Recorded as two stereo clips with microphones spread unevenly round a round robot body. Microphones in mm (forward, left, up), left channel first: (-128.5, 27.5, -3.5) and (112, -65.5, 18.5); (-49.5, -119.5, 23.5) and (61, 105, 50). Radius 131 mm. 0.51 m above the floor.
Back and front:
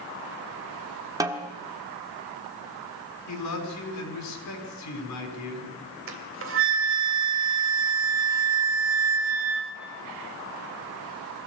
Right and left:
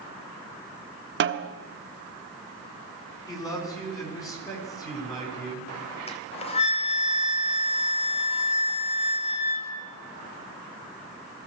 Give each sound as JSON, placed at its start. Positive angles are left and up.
{"t": 1.2, "sound": "a snare drum", "azimuth_deg": 55, "distance_m": 1.3}
{"t": 3.3, "sound": "a man speaking", "azimuth_deg": 170, "distance_m": 5.5}
{"t": 6.1, "sound": "a flute", "azimuth_deg": -55, "distance_m": 2.5}